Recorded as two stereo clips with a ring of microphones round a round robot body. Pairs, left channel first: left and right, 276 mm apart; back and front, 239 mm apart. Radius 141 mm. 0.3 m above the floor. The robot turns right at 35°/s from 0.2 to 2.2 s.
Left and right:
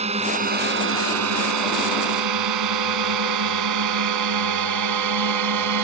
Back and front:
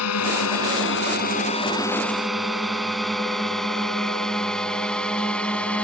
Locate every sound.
0.0 s a drone: 160° right; by 5.8 s 95° right